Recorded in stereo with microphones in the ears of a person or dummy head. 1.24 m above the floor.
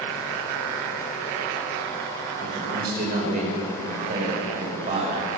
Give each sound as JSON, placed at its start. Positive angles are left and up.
{"t": 2.4, "sound": "a man speaking", "side_deg": -50, "distance_m": 5.0}